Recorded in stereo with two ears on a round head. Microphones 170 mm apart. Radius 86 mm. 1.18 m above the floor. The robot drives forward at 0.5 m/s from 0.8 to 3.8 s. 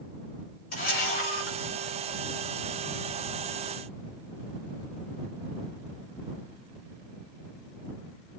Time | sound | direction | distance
0.7 | a camera shutter | 50° left (ahead or behind) | 7 m